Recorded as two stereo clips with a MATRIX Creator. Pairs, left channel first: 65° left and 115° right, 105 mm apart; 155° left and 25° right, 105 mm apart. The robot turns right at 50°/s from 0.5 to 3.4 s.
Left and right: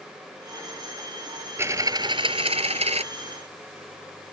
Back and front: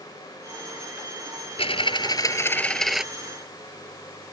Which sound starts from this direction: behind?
A dropped coin, at 1.6 s.